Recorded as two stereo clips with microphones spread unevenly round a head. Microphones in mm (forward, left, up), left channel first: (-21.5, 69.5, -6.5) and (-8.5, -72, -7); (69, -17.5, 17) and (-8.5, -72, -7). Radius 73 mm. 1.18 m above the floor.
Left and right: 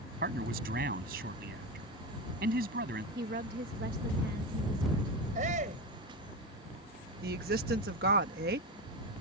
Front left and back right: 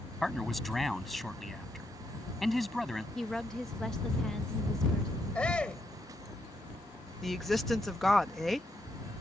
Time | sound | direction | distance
0.2 | a man speaking | 55° right | ?
3.1 | a woman speaking | 50° right | ?
5.3 | a shout | 40° right | ?
7.2 | a woman speaking | 55° right | ?